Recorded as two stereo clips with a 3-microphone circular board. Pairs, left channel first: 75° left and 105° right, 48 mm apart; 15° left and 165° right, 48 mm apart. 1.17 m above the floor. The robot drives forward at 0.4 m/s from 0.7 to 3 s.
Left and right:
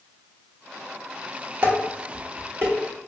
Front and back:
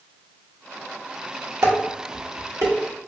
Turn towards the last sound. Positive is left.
turn(degrees=-160)